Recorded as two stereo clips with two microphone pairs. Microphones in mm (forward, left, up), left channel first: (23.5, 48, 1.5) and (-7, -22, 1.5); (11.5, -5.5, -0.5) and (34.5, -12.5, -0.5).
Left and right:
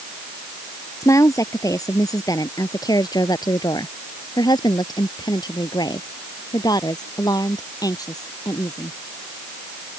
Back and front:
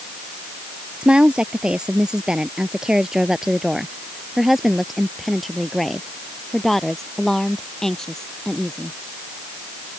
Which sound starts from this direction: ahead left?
A woman speaking, at 1.0 s.